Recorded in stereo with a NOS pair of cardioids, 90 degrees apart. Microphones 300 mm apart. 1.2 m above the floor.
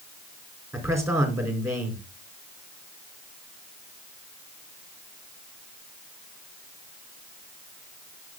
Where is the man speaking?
10° right, 4 m.